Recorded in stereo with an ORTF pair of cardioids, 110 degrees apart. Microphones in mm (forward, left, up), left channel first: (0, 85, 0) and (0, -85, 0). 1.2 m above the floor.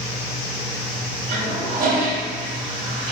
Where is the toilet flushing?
60° right, 2 m.